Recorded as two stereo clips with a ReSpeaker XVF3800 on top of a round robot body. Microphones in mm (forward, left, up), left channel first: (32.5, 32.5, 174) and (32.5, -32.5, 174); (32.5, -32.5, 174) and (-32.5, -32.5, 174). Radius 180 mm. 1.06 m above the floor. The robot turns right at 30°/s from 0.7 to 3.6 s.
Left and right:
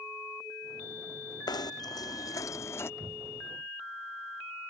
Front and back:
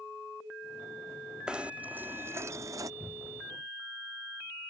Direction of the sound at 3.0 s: 120° right.